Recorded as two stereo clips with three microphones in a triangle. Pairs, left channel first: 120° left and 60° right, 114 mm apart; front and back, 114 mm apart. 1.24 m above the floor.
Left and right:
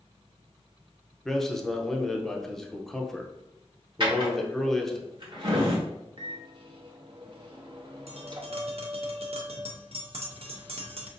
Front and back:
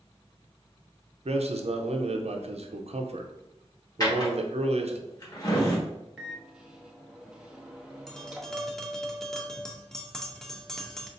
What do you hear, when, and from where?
1.2 s a man speaking: 155° right, 0.6 m
4.0 s a drawer: 40° right, 1.2 m
6.2 s a microwave: 100° right, 0.7 m
8.1 s tapping: 85° right, 0.6 m